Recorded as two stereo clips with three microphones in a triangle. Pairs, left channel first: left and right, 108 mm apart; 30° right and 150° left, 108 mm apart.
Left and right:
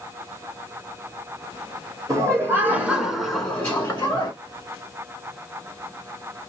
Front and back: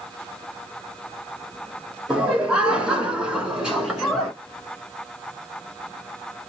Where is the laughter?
135° right, 1.4 m; by 4.3 s 65° left, 1.2 m.